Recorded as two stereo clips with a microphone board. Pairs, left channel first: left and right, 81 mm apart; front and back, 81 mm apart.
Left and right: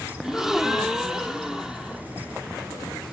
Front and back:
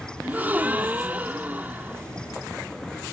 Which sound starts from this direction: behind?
A gasp, at 0.2 s.